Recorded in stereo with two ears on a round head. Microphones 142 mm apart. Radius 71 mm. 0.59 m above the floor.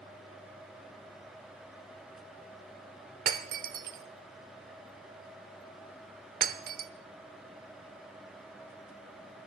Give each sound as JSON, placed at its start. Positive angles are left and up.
{"t": 3.3, "sound": "breaking glass", "side_deg": -60, "distance_m": 1.0}